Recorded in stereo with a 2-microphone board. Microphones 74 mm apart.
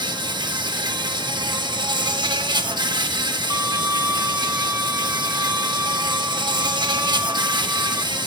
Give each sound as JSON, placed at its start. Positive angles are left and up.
{"t": 0.0, "sound": "an insect", "side_deg": -70, "distance_m": 1.7}
{"t": 3.5, "sound": "a violin", "side_deg": -35, "distance_m": 1.0}